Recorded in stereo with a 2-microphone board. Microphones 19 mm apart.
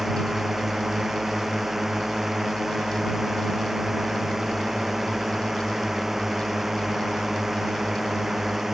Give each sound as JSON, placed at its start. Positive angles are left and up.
{"t": 0.0, "sound": "a drone", "side_deg": -15}